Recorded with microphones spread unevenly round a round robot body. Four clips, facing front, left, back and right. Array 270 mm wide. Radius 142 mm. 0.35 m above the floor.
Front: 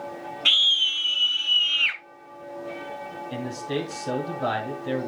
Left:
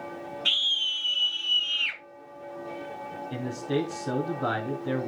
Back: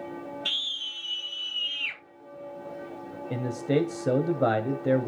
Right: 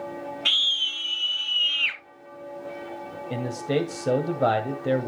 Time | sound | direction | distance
0.5 | a scream | 40° right | 4 m
3.3 | a man speaking | 140° right | 2 m